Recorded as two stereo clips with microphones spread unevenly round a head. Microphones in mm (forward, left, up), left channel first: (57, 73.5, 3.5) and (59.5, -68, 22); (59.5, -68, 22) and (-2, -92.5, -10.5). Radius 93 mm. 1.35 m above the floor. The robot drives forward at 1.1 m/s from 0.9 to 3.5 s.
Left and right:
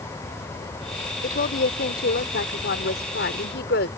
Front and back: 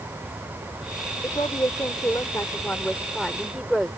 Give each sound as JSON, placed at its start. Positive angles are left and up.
{"t": 1.2, "sound": "a woman speaking", "azimuth_deg": 70}